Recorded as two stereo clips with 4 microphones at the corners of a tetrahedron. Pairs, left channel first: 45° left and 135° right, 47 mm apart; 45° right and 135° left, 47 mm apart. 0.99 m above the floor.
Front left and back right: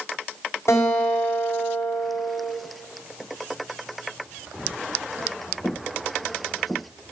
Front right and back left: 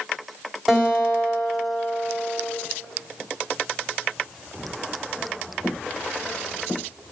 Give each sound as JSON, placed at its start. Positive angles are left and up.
{"t": 0.7, "sound": "a guitar", "azimuth_deg": 45, "distance_m": 3.5}